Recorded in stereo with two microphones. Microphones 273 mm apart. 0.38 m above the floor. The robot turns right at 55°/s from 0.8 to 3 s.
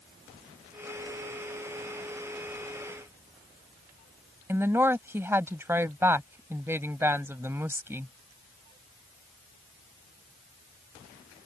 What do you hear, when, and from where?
4.5 s a woman speaking: 10° right (ahead or behind)